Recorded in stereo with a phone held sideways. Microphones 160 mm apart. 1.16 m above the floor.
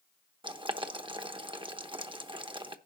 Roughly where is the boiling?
Right.